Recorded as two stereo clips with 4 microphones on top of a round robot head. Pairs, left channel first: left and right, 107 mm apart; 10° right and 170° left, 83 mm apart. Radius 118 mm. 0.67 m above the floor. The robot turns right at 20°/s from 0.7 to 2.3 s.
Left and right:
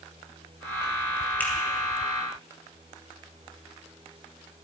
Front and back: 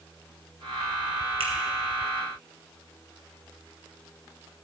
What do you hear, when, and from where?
1.4 s a finger snap: 165° left, 3 m; by 1.5 s 170° left, 3 m